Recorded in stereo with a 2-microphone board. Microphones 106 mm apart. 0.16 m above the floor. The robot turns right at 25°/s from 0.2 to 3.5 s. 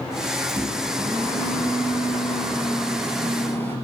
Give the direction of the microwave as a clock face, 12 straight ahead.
2 o'clock.